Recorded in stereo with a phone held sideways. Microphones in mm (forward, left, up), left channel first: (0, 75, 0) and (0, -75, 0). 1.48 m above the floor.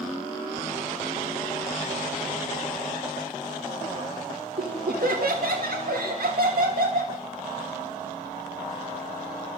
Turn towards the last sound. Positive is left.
turn(degrees=-80)